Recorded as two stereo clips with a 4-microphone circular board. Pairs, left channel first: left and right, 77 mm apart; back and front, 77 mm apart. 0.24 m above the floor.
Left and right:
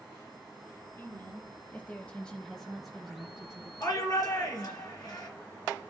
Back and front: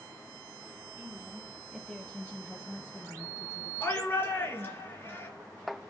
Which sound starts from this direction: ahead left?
A woman speaking, at 1.0 s.